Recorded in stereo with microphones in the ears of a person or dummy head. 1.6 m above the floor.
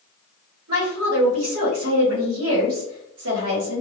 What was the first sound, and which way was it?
A woman speaking, 90° right.